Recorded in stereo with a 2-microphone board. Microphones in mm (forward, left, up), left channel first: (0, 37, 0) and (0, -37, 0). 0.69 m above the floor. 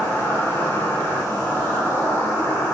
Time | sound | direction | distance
0.0 | an insect | 25° left (ahead or behind) | 1.1 m